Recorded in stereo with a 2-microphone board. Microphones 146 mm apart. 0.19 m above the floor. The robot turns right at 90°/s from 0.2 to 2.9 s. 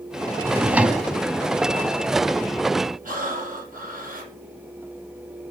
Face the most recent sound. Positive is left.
turn(degrees=-70)  # may be behind; listen again after turning